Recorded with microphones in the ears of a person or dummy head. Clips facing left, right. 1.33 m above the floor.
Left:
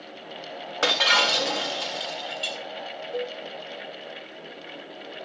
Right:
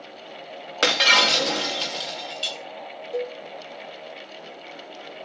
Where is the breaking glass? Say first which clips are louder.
Right 2 dB; 25° right (ahead or behind), 0.8 m.